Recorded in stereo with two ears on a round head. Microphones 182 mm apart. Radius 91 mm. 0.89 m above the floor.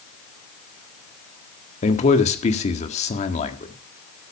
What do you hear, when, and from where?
1.8 s a man speaking: 35° left (ahead or behind), 1.7 m